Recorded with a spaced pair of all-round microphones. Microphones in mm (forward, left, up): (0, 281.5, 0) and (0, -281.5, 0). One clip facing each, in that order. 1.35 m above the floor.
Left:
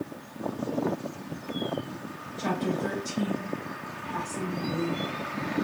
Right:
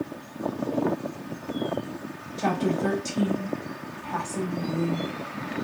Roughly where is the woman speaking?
Right.